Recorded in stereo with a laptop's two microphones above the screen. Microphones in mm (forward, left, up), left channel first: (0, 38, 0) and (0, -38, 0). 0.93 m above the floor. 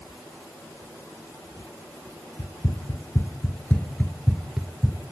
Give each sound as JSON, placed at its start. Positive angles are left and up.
{"t": 2.4, "sound": "running footsteps", "side_deg": 50, "distance_m": 1.4}